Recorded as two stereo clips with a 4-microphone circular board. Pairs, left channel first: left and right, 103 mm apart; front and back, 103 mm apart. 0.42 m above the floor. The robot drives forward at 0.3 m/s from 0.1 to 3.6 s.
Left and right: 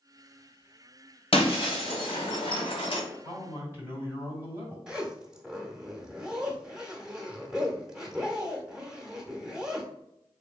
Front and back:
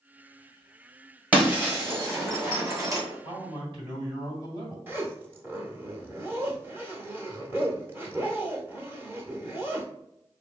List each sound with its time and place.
1.3 s breaking glass: 105° left, 1.6 m; by 3.0 s 120° left, 1.8 m
3.2 s a man speaking: 155° right, 1.8 m
4.9 s a zipper: 160° right, 0.7 m